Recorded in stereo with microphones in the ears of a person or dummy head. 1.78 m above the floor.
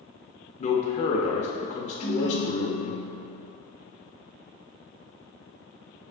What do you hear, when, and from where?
0.6 s a man speaking: 40° left (ahead or behind), 0.6 m
2.0 s a ringtone: 35° left (ahead or behind), 1.4 m